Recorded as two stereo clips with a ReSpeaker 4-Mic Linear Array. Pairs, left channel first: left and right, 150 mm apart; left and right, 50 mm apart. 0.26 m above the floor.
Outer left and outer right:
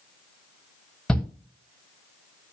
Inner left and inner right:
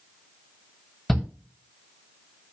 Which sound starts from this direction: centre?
A shout, at 1.1 s.